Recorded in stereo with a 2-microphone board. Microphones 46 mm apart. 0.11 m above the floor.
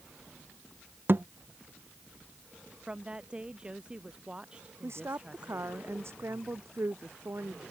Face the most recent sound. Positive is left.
turn(degrees=-65)  # may be behind; listen again after turning